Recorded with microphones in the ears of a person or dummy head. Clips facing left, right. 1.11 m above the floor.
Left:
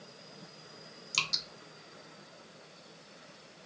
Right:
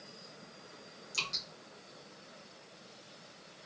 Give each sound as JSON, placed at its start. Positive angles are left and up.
{"t": 1.1, "sound": "dripping", "side_deg": 55, "distance_m": 1.0}